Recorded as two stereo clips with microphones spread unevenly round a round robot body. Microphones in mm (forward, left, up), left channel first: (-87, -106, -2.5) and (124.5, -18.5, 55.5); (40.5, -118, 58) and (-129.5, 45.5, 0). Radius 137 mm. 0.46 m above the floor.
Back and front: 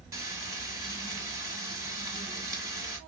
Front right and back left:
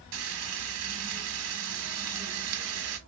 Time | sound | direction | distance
0.1 | frying | 100° left | 1.0 m